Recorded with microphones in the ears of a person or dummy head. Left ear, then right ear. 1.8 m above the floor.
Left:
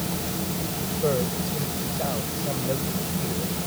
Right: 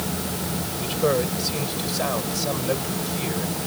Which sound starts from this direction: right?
A man speaking, at 0.8 s.